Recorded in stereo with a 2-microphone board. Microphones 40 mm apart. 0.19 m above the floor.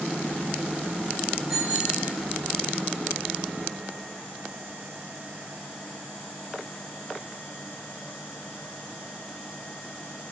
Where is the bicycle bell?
20° right (ahead or behind), 9.5 m.